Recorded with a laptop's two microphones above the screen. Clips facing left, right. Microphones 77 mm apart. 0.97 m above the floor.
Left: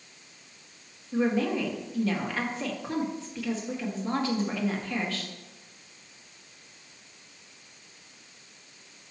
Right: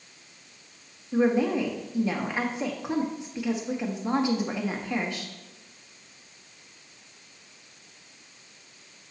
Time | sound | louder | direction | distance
1.1 | a woman speaking | right 3 dB | 20° right (ahead or behind) | 1.6 m